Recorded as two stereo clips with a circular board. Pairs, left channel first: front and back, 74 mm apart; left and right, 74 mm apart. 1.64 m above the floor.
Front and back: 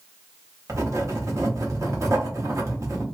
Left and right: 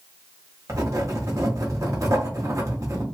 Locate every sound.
0.7 s writing: 135° right, 0.9 m